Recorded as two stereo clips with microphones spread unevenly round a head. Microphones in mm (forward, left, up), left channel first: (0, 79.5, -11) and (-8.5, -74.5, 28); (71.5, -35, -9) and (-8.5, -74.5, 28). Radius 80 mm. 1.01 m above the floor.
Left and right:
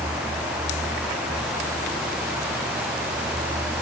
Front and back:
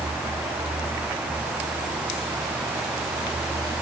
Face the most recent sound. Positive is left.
No sound to turn to.